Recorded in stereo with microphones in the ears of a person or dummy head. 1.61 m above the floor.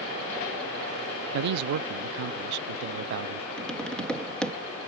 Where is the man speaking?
60° right (ahead or behind).